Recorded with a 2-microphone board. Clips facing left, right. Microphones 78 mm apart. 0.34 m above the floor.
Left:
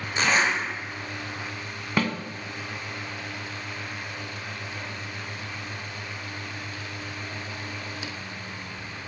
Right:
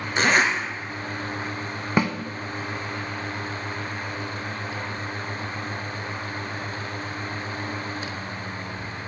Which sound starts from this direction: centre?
A snare drum, at 2.0 s.